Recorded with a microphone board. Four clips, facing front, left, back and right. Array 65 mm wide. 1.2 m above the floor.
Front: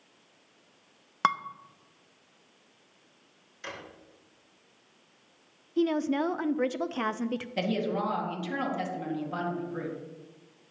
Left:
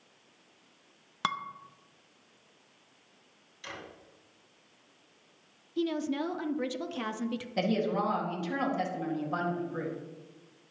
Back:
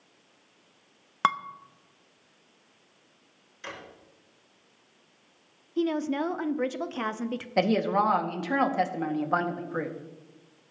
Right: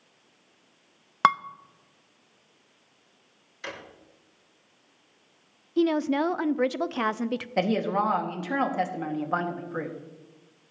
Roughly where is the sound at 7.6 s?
Behind right.